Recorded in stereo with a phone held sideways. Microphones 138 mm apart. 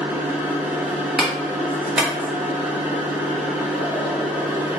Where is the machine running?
10° right (ahead or behind), 1.0 m.